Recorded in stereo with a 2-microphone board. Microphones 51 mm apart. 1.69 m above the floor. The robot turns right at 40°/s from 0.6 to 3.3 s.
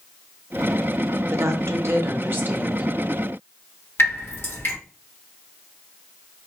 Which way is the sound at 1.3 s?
85° right.